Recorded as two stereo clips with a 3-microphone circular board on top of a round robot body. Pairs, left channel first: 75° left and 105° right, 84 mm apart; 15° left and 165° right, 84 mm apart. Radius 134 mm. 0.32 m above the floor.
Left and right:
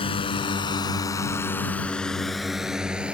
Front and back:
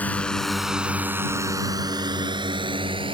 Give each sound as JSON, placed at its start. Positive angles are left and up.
{"t": 0.0, "sound": "a drone", "azimuth_deg": 90}